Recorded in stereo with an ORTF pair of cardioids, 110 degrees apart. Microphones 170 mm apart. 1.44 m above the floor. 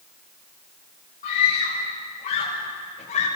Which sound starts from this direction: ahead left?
A scream, at 1.2 s.